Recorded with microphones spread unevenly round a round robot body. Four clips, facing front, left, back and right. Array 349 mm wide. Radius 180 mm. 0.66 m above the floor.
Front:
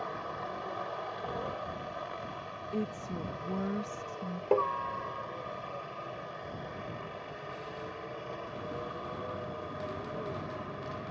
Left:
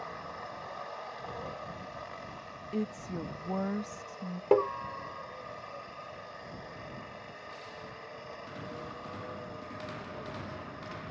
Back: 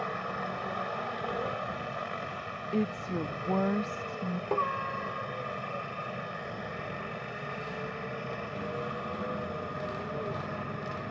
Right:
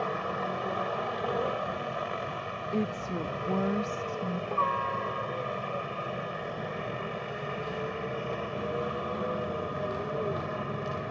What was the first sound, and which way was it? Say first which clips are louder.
A helicopter: right 10 dB, back 3 dB; 120° right.